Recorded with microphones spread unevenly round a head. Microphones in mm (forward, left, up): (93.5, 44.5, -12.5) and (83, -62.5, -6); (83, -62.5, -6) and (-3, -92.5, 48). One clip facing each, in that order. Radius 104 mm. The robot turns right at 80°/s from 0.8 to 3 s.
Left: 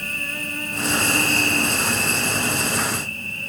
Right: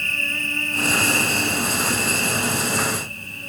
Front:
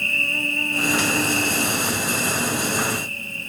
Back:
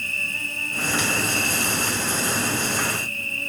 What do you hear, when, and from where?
0.0 s an insect: 5° left, 2.5 m; by 3.5 s straight behind, 2.5 m